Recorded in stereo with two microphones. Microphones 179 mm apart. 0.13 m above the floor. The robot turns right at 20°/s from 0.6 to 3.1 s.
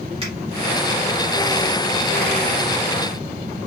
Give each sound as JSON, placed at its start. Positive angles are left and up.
{"t": 0.2, "sound": "a finger snap", "side_deg": -30, "distance_m": 2.5}